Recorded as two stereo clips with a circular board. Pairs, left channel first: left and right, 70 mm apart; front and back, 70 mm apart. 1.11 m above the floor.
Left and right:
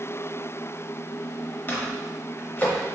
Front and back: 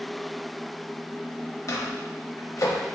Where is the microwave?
30° left, 0.7 m.